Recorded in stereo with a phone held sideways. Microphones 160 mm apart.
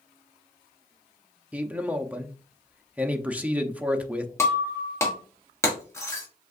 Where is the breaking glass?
15° left (ahead or behind), 1.2 m.